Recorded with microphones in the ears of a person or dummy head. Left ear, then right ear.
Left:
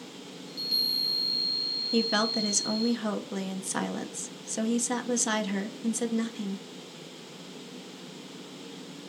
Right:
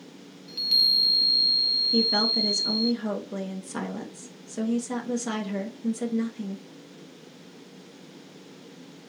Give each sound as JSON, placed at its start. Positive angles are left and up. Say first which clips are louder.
{"t": 0.5, "sound": "a chime", "louder": "right 7 dB", "side_deg": -15, "distance_m": 0.6}
{"t": 1.9, "sound": "a woman speaking", "louder": "right 4 dB", "side_deg": 20, "distance_m": 0.6}